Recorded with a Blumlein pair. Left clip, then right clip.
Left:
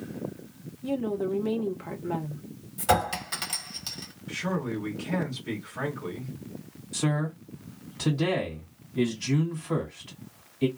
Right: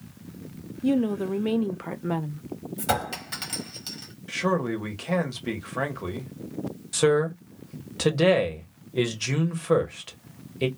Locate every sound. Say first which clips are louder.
0.8 s a woman speaking: right 3 dB; 65° right, 0.6 m
2.8 s a clink: left 3 dB; straight ahead, 1.0 m
4.3 s a man speaking: right 6 dB; 60° right, 1.1 m
6.9 s a man speaking: right 9 dB; 30° right, 0.9 m